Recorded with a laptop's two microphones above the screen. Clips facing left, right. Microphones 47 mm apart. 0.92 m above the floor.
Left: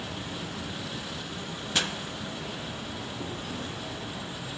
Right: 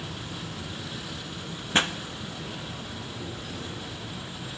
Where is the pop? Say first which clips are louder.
Right 5 dB; 35° right (ahead or behind), 0.5 m.